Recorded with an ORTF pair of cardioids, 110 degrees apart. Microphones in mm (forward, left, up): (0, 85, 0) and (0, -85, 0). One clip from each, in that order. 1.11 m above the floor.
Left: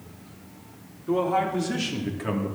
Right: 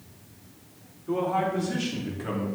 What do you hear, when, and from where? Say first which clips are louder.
1.1 s a man speaking: left 2 dB; 20° left, 3.5 m; by 2.5 s 30° left, 2.5 m